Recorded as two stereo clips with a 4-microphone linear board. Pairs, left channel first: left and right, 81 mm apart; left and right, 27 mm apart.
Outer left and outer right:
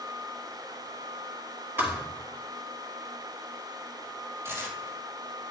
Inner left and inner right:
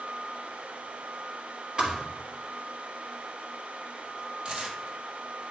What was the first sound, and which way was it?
A thud, 30° right (ahead or behind).